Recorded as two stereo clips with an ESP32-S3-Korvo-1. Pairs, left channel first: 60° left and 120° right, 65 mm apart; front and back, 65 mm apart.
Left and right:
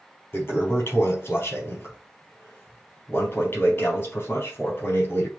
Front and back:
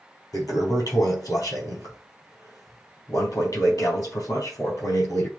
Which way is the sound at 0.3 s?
15° left.